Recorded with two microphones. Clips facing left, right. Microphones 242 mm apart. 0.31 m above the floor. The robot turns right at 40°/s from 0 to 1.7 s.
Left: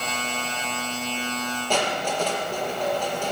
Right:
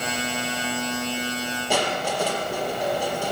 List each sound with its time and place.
1.7 s crushing: 10° right (ahead or behind), 4 m